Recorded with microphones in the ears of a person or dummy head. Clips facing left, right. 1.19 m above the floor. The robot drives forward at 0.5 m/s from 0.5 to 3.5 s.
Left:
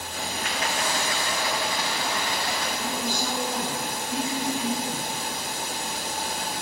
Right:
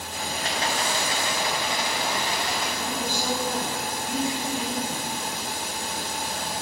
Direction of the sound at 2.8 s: 5° left (ahead or behind).